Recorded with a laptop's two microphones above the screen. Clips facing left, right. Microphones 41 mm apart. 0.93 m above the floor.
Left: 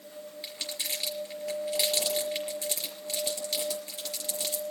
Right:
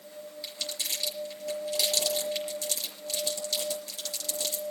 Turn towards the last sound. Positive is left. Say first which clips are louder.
# right 1 dB
turn(degrees=30)  # may be behind; listen again after turning